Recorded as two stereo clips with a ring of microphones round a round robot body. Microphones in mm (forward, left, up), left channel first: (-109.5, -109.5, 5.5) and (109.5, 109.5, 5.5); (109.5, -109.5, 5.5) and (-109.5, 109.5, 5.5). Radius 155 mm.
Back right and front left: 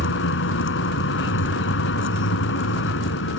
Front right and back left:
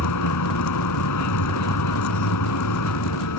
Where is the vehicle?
80° right.